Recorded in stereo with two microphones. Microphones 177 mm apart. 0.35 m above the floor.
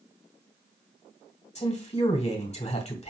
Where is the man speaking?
40° left (ahead or behind), 2.0 m.